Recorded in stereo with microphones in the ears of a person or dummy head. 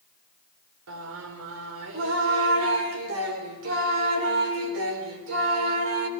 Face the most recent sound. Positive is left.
turn(degrees=-85)